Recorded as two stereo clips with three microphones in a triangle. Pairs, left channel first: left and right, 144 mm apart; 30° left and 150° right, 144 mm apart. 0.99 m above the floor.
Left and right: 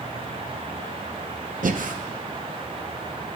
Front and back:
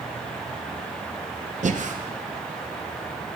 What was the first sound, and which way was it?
Breathing, 115° right.